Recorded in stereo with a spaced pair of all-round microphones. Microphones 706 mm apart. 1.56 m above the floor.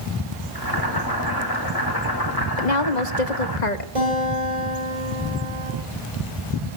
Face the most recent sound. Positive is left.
turn(degrees=-50)  # may be behind; listen again after turning